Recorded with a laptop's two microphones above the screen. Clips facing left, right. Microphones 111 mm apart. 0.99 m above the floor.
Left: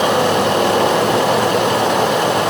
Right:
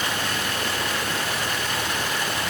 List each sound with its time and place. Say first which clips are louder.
0.0 s running water: left 14 dB; 85° left